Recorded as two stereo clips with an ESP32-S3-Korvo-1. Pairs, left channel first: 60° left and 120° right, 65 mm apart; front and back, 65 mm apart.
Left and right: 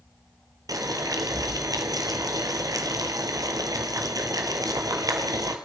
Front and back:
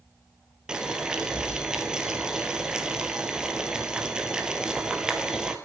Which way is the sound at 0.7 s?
100° right.